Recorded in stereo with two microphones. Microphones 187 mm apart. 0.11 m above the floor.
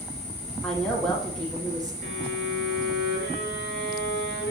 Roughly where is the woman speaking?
Centre.